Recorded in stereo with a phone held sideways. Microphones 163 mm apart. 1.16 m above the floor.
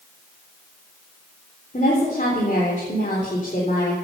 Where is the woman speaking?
50° left (ahead or behind), 3.5 m.